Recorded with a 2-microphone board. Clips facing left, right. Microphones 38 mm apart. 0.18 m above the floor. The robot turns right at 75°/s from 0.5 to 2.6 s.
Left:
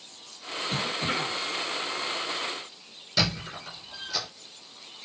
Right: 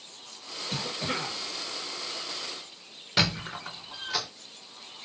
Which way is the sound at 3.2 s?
45° right (ahead or behind).